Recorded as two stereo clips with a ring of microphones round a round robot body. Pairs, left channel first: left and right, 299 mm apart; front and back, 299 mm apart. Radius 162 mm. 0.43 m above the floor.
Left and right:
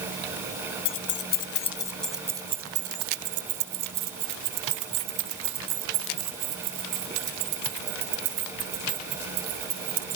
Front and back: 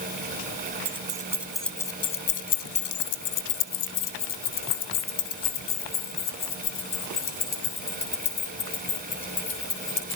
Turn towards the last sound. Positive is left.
turn(degrees=-50)